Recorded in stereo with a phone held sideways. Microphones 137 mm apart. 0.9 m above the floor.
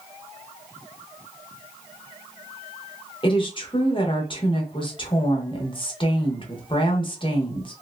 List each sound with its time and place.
3.2 s a woman speaking: 40° left (ahead or behind), 0.9 m